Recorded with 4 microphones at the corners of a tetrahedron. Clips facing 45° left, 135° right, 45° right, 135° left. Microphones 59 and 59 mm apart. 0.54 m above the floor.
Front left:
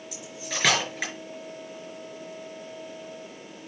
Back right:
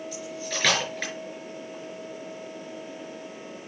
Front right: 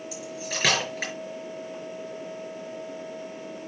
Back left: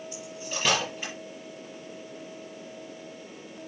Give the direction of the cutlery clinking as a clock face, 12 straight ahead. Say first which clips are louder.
Front left 1 dB, front right 3 dB; 1 o'clock.